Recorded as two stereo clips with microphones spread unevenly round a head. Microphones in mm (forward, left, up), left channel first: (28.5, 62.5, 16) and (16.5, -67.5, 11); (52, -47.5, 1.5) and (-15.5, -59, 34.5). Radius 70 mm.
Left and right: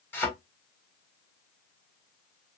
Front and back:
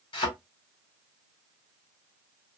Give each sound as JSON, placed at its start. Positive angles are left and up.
{"t": 0.1, "sound": "a thud", "azimuth_deg": 15, "distance_m": 2.0}